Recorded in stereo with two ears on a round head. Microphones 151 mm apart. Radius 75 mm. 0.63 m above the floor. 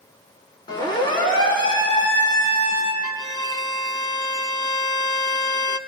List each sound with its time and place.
0.7 s a siren: 30° left (ahead or behind), 7 m; by 2.9 s 35° left (ahead or behind), 6 m
3.0 s a violin: 20° left (ahead or behind), 0.7 m